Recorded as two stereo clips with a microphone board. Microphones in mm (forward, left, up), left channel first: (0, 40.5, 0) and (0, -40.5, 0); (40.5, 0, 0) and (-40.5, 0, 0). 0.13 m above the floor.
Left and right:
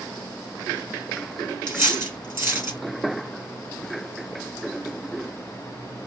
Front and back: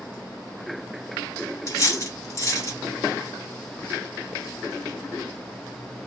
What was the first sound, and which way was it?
Cutlery clinking, 40° right.